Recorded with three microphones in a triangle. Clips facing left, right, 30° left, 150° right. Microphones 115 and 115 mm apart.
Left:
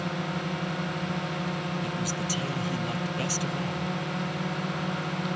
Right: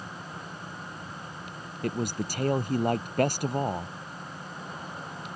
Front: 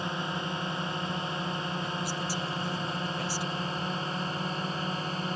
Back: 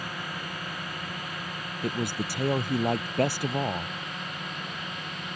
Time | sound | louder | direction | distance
0.0 | a drone | left 10 dB, front 4 dB | 95° left | ?
1.8 | a man speaking | even, back 3 dB | 125° right | ?